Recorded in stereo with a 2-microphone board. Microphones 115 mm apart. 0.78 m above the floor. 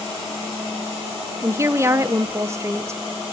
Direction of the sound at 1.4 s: 25° right (ahead or behind).